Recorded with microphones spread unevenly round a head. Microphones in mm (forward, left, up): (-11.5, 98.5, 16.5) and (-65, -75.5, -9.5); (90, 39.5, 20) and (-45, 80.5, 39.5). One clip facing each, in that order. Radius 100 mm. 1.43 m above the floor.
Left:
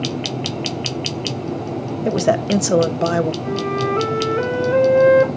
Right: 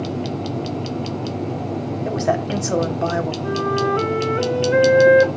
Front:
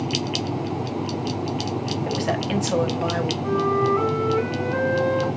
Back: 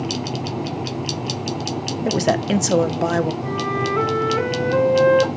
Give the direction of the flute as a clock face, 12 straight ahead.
7 o'clock.